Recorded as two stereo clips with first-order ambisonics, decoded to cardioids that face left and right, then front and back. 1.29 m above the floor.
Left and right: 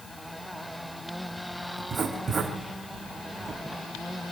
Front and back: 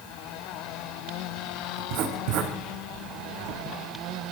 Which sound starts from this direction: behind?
Writing, at 1.8 s.